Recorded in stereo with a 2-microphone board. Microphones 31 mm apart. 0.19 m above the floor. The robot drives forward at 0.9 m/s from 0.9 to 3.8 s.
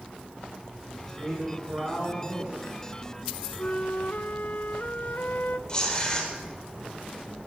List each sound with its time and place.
1.1 s a man speaking: 25° right (ahead or behind), 8.5 m; by 2.7 s 30° right (ahead or behind), 7.5 m
3.6 s a flute: 65° left (ahead or behind), 0.5 m; by 5.6 s 50° left (ahead or behind), 0.6 m
5.7 s tearing paper: 20° left (ahead or behind), 3.5 m